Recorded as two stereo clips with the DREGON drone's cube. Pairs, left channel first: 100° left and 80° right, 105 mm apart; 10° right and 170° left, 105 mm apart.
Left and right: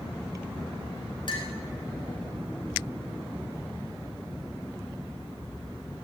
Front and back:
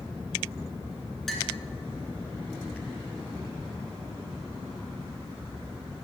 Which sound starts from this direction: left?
A clink, at 1.3 s.